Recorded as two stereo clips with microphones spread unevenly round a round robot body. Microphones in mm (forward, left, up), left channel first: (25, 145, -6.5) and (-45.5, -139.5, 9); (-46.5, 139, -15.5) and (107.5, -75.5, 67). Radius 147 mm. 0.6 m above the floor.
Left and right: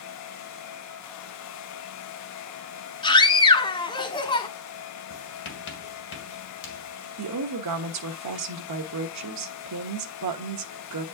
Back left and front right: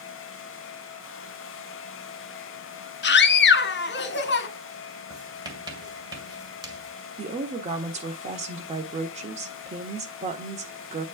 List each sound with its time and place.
3.0 s a scream: 145° left, 1.1 m
5.1 s writing: 25° left, 2 m
7.2 s a woman speaking: 130° right, 1.2 m